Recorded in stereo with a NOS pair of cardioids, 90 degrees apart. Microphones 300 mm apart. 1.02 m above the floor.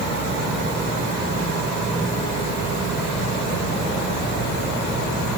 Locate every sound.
Only background noise.